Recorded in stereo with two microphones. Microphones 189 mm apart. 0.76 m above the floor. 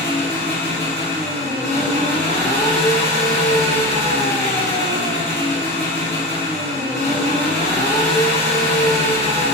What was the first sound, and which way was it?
An engine running, 75° left (ahead or behind).